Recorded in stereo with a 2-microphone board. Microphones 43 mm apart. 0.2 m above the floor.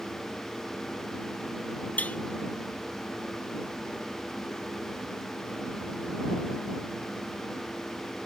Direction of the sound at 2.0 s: 30° left (ahead or behind).